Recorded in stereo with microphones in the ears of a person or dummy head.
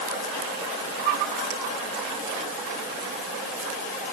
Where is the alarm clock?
I don't hear an alarm clock.